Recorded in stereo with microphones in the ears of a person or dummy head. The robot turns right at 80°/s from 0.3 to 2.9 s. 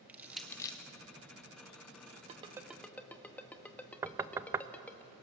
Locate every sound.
0.1 s crushing: 10° right (ahead or behind), 1.6 m; by 0.8 s 25° left (ahead or behind), 1.6 m
2.3 s a ringtone: 40° right (ahead or behind), 1.2 m; by 5.0 s 5° left (ahead or behind), 1.2 m
4.0 s knocking: 20° right (ahead or behind), 0.6 m